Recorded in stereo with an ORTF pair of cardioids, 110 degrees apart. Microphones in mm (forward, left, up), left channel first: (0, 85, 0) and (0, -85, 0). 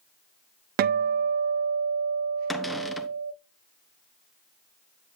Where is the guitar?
60° right, 0.6 m.